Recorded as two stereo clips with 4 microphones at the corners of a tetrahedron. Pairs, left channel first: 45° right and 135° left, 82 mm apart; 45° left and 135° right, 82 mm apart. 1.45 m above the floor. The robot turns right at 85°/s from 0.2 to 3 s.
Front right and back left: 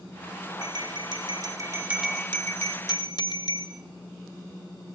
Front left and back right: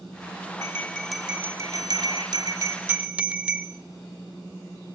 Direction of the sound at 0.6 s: 90° left.